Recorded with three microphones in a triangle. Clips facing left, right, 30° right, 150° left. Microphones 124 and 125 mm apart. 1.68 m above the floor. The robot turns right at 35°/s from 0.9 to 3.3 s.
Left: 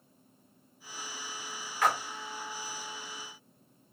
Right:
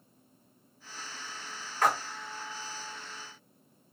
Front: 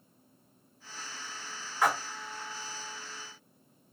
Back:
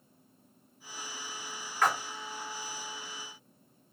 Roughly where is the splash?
Right.